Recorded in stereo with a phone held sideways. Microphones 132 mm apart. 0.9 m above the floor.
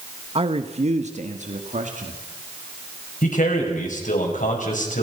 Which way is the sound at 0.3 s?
45° right (ahead or behind).